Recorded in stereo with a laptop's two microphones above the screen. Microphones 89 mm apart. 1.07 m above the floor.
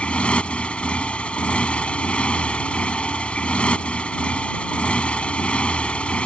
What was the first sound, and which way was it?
A motorcycle, 15° left (ahead or behind).